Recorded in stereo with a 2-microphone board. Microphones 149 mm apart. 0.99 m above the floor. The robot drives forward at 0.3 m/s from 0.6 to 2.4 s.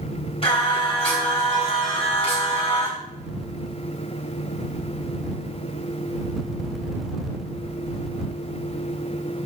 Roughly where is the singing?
Left.